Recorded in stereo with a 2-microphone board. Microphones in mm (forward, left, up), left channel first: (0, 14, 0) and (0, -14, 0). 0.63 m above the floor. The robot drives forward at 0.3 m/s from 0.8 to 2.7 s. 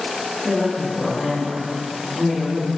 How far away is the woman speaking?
About 0.6 m.